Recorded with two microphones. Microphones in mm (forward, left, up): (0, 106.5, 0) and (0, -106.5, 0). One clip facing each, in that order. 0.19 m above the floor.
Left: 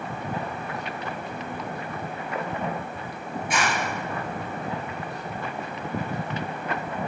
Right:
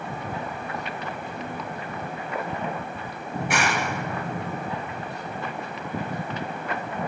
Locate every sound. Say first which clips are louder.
3.3 s a clap: right 2 dB; 70° right (ahead or behind), 2.5 m